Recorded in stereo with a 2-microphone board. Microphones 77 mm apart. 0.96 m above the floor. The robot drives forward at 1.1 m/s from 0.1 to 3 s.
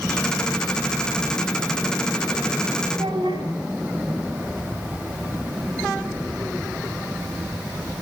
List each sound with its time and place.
2.9 s a child speaking: 80° right, 6 m